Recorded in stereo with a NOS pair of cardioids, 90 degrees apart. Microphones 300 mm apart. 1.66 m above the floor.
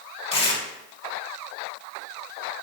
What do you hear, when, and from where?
0.3 s tearing paper: 20° left, 2.5 m